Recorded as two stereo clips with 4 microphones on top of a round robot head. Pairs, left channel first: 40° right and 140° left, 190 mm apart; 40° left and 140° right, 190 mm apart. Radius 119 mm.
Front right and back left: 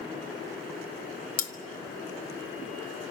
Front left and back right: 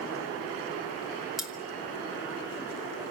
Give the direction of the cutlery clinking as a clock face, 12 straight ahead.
2 o'clock.